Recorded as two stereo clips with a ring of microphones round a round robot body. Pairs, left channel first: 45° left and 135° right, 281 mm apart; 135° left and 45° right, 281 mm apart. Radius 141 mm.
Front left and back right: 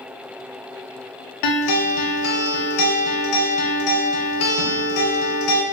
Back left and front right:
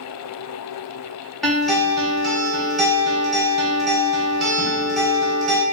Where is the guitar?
45° left, 0.6 m.